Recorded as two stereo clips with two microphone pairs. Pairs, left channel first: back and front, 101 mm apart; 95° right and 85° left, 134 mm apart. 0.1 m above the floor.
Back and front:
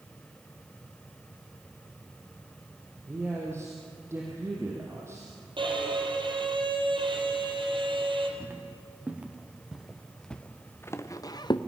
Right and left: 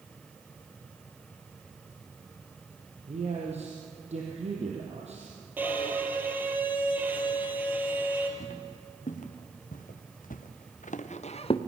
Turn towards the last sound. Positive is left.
turn(degrees=-140)